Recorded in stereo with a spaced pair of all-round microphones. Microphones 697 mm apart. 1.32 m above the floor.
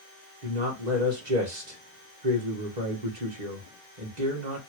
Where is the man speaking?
75° right (ahead or behind), 1.7 m.